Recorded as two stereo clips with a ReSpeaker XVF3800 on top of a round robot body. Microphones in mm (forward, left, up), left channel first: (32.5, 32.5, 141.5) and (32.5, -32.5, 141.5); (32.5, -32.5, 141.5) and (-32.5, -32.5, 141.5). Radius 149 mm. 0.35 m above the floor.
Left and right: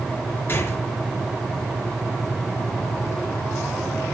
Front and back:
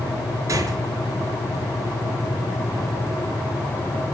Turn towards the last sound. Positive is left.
turn(degrees=145)